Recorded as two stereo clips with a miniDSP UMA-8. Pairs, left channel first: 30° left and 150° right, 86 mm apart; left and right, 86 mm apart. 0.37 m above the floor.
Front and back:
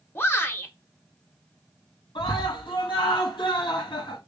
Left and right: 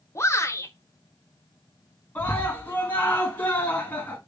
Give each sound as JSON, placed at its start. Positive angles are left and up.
{"t": 0.1, "sound": "a shout", "azimuth_deg": 70, "distance_m": 1.2}
{"t": 2.1, "sound": "a scream", "azimuth_deg": 20, "distance_m": 3.0}